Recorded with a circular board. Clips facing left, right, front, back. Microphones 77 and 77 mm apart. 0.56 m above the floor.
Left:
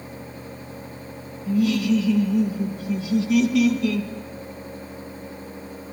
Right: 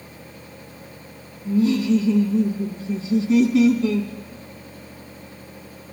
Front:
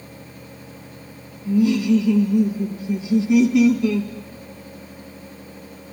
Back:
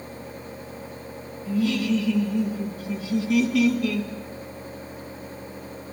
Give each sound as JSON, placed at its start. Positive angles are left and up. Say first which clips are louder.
{"t": 1.4, "sound": "laughter", "louder": "right 2 dB, front 6 dB", "azimuth_deg": -55, "distance_m": 0.8}